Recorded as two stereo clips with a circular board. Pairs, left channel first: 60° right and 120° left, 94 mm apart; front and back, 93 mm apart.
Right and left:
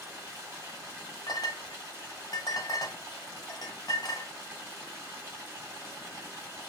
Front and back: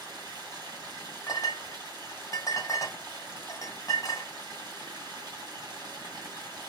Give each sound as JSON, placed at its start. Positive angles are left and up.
{"t": 0.0, "sound": "running water", "azimuth_deg": 170, "distance_m": 1.5}
{"t": 1.3, "sound": "a clink", "azimuth_deg": -40, "distance_m": 0.8}